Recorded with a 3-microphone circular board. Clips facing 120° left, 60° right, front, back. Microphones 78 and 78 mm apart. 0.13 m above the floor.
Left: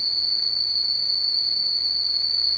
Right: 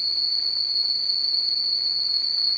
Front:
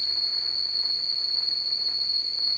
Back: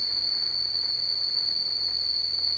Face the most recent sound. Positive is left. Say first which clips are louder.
# left 1 dB, even
turn(degrees=-100)